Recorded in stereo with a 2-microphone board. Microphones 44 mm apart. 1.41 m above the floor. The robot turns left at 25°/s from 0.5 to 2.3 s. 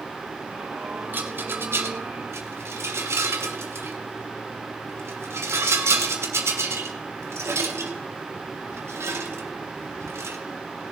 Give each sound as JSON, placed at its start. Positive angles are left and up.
{"t": 1.1, "sound": "a rattle", "side_deg": -45, "distance_m": 1.4}